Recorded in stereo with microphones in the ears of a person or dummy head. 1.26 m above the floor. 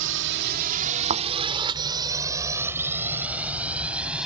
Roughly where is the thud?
Right.